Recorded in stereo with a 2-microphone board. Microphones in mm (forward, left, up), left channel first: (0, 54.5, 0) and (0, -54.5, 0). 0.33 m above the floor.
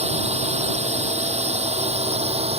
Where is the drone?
75° right (ahead or behind); by 2.6 s 65° right (ahead or behind).